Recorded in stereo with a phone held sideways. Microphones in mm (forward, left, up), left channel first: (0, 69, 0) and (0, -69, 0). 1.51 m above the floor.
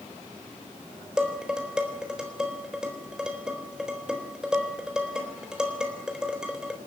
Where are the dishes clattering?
5° right (ahead or behind), 3.5 m.